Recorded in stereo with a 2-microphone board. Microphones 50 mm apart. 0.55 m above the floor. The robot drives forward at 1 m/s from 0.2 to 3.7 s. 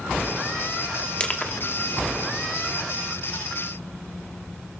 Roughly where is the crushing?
Left.